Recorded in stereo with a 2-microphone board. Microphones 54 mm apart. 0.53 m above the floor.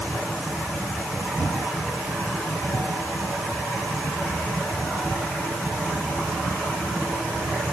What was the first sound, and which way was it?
Only background noise.